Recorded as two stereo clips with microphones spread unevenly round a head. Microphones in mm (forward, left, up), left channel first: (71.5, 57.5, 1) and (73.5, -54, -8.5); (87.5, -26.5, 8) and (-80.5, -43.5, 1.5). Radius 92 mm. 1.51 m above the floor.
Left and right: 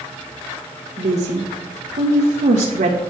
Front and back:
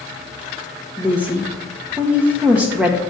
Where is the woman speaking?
90° right, 1.0 m.